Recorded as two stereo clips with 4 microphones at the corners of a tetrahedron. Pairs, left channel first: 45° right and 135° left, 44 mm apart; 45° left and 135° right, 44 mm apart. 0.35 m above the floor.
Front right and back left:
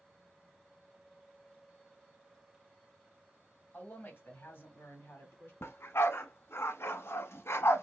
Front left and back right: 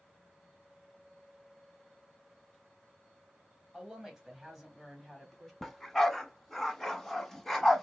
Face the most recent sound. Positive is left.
turn(degrees=-35)